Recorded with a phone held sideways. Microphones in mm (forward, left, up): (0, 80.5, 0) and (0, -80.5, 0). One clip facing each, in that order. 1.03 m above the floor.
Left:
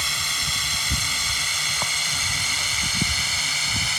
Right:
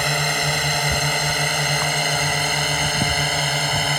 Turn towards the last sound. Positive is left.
turn(degrees=-60)  # may be behind; listen again after turning